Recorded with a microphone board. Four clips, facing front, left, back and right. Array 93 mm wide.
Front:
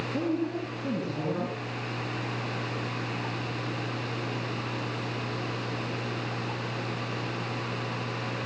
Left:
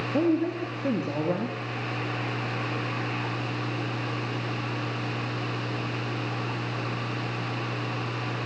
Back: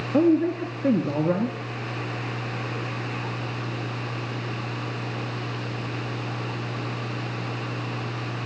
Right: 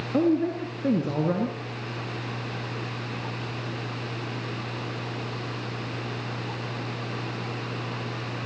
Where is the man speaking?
145° right, 4.5 m.